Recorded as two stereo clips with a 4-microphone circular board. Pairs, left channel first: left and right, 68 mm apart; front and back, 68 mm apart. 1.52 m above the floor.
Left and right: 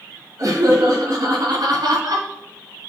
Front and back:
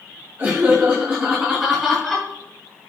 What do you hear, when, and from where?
0.4 s laughter: 125° right, 3.5 m; by 2.3 s 90° right, 3 m